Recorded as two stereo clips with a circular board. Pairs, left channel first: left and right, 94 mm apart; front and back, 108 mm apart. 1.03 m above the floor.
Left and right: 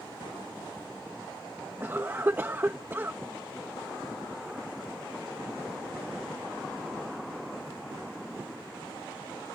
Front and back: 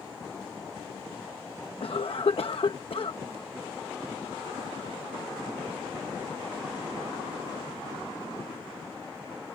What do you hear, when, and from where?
1.8 s a cough: 25° right